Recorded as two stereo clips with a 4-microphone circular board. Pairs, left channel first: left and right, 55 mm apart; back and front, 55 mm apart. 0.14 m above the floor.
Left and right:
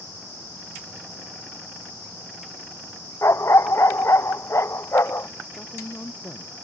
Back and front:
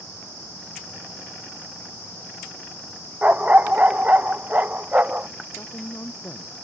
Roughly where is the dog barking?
Ahead left.